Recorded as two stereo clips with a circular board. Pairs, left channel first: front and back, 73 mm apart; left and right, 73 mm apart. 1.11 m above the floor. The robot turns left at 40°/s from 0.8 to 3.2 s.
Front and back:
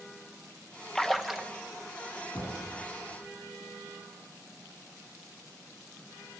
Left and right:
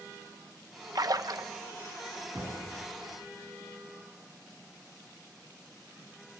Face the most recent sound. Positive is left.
turn(degrees=-65)